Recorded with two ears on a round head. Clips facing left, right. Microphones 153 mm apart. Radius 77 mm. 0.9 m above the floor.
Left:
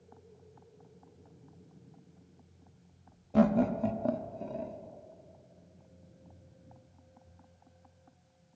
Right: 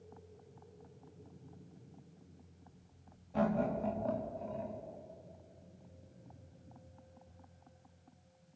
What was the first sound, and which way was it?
Laughter, 70° left (ahead or behind).